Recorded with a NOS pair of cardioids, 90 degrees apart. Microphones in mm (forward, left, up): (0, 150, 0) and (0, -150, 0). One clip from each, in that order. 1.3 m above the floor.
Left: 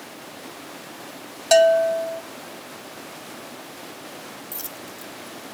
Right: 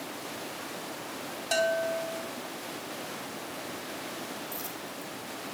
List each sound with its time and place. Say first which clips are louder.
1.5 s a bell: left 12 dB; 60° left, 1.0 m
4.5 s a dropped coin: left 1 dB; 55° left, 1.7 m